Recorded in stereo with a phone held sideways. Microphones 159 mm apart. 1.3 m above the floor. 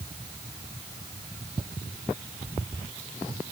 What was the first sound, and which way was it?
Only background noise.